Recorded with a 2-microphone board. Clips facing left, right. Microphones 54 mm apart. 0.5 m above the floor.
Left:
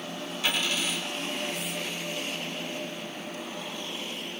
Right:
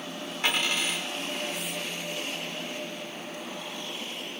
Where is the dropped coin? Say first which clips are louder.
Right 1 dB; 45° right (ahead or behind), 1.0 m.